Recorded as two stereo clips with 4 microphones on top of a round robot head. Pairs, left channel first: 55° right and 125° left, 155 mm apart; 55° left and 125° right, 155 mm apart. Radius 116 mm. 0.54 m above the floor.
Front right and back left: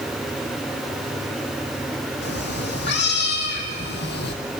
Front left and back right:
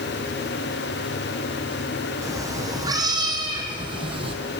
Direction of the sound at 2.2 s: 55° right.